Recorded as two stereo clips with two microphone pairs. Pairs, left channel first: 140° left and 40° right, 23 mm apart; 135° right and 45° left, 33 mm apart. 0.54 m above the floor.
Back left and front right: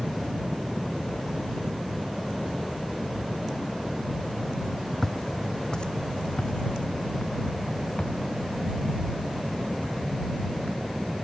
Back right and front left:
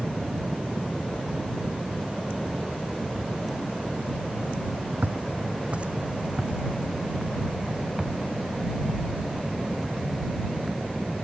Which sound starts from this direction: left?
Footsteps, at 5.0 s.